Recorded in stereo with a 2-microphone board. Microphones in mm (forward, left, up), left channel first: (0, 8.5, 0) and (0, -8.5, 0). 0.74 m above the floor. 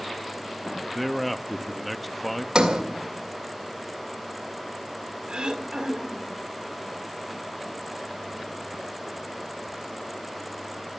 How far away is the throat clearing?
About 2 m.